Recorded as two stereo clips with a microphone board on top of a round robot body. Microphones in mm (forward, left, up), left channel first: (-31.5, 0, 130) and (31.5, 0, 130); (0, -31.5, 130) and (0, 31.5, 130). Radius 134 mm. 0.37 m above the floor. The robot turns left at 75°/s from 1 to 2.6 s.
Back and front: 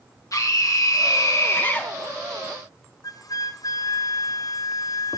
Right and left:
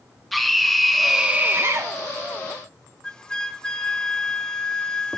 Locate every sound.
0.3 s a scream: straight behind, 1.6 m; by 1.9 s 110° left, 1.6 m
3.0 s a flute: 170° right, 0.8 m